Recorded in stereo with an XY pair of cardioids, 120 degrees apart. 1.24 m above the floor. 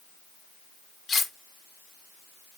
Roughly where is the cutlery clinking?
Ahead left.